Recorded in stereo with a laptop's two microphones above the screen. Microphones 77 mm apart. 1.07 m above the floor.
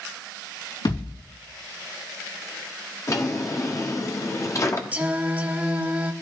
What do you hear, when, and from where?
0.8 s a thud: 85° left, 4 m
3.1 s a drawer: 45° left (ahead or behind), 0.9 m
4.9 s singing: 20° right (ahead or behind), 0.9 m